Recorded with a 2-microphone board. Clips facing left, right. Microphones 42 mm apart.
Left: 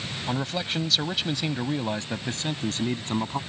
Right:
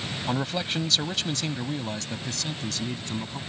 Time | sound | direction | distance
0.3 | a man speaking | 10° right (ahead or behind) | ?